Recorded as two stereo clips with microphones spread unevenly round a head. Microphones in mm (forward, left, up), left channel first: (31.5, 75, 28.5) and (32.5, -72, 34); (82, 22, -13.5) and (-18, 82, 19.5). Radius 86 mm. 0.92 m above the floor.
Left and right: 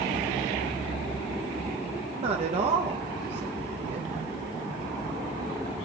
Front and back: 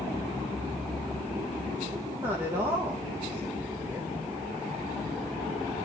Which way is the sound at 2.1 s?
125° right.